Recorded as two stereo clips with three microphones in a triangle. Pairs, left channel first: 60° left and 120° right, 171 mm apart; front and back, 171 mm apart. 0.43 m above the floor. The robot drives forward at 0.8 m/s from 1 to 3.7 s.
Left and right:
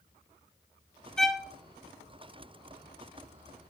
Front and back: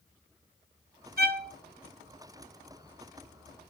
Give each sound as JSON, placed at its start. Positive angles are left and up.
{"t": 1.2, "sound": "a violin", "azimuth_deg": 145, "distance_m": 0.9}